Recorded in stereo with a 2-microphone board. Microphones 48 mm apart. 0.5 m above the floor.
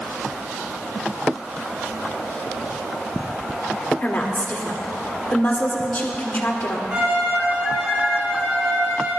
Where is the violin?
25° right (ahead or behind), 4 m.